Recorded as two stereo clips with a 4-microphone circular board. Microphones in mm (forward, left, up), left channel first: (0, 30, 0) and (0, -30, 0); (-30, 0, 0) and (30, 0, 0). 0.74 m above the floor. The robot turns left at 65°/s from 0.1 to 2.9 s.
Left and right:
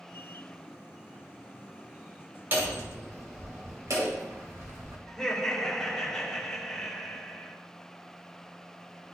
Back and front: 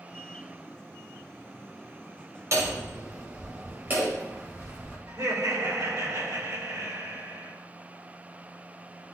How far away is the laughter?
About 2 m.